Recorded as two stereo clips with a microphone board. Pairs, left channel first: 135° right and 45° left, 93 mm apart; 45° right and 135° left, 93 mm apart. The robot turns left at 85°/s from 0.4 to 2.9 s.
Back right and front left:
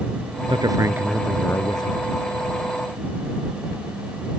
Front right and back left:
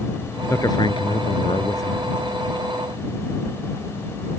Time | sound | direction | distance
0.5 | a man speaking | 20° left | ?